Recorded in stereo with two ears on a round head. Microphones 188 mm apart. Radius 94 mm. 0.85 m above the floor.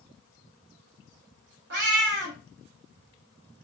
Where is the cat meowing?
50° right (ahead or behind), 0.7 m.